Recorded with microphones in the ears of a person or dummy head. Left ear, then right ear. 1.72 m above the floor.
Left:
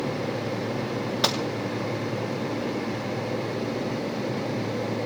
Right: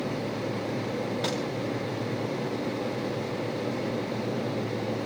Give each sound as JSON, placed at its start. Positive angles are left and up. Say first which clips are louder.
{"t": 1.2, "sound": "a gunshot", "louder": "left 8 dB", "side_deg": 50, "distance_m": 2.5}